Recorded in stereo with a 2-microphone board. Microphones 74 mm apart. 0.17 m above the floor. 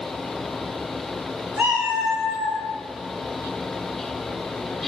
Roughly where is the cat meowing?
Right.